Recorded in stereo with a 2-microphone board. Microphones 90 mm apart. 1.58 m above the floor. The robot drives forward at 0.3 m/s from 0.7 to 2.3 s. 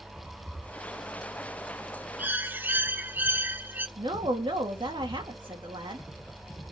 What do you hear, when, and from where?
2.2 s a bird: 20° right (ahead or behind), 0.6 m
4.0 s a woman speaking: 65° right (ahead or behind), 2.5 m